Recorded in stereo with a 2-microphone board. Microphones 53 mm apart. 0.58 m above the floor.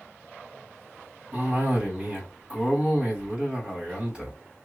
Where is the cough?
15° right (ahead or behind), 3 m.